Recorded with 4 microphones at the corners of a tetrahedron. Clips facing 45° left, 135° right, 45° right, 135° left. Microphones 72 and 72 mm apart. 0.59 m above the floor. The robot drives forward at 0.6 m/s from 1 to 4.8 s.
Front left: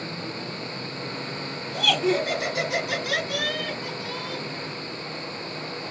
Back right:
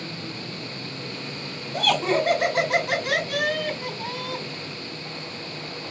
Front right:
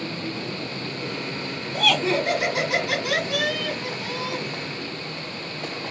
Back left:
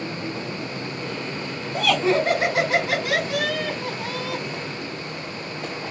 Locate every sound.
1.7 s laughter: 165° right, 2.5 m; by 4.4 s 170° right, 4 m